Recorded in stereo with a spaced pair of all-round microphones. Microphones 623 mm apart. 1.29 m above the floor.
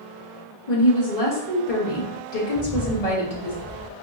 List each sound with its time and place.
0.7 s a woman speaking: 70° left (ahead or behind), 1.3 m
2.5 s a bird: 55° left (ahead or behind), 1.6 m